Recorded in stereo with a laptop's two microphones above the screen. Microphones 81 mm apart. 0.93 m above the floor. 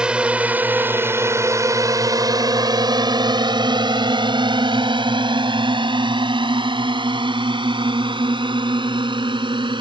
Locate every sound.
0.0 s a drone: 10° right (ahead or behind); by 9.8 s 80° right